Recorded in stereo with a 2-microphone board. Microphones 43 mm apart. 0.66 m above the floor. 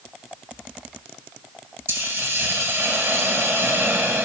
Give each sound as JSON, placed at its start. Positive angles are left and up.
{"t": 1.9, "sound": "a hiss", "side_deg": -80, "distance_m": 2.5}